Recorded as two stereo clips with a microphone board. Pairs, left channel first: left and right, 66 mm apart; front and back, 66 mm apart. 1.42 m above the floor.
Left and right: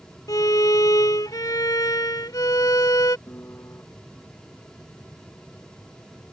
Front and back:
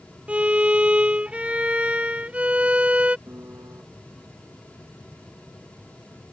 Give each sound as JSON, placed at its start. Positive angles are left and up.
{"t": 0.3, "sound": "a violin", "azimuth_deg": 110}
{"t": 3.3, "sound": "a piano", "azimuth_deg": 135}